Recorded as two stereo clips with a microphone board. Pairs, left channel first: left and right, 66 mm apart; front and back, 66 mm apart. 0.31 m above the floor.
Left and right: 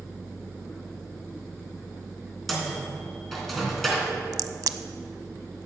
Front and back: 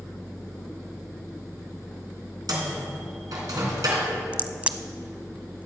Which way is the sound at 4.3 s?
110° right.